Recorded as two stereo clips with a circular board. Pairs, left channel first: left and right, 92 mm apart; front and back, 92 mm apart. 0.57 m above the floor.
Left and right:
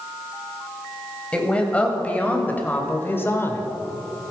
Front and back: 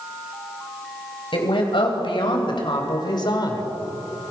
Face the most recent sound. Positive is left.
turn(degrees=35)